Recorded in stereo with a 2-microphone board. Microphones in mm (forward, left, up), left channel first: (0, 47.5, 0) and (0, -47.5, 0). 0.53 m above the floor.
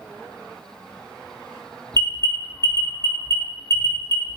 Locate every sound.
1.9 s an alarm: 35° left (ahead or behind), 0.5 m